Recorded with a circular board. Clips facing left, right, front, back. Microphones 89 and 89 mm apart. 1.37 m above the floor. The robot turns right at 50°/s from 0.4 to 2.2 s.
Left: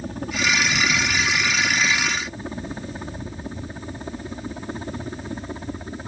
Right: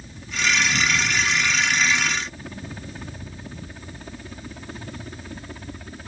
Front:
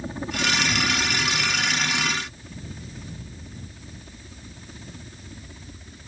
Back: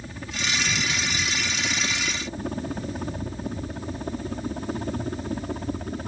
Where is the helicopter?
60° left; by 6.1 s 155° left.